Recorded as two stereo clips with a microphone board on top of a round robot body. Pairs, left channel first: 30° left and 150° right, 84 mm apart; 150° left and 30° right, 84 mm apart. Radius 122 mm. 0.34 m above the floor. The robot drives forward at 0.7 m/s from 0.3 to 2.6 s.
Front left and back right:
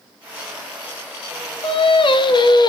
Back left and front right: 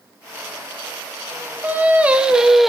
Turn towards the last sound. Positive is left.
turn(degrees=60)